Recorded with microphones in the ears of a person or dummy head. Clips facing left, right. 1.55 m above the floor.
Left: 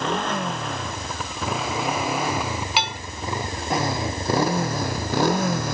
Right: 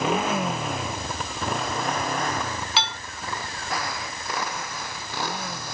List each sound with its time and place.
0.0 s a motorcycle: centre (ahead or behind); by 5.8 s 55° left (ahead or behind)
2.8 s dishes clattering: 25° left (ahead or behind)